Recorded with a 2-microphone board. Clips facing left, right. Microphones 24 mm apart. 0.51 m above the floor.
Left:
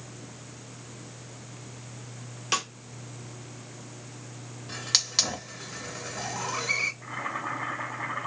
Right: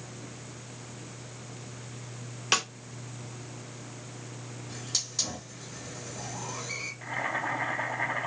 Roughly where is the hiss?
Left.